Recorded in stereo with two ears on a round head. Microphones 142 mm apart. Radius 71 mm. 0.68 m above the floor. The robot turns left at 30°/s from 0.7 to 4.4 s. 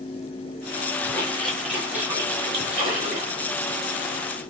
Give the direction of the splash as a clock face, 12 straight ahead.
11 o'clock.